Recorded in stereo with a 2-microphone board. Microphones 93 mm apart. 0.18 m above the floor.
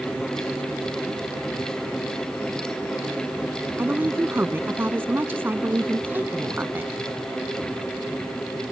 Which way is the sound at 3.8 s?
25° right (ahead or behind).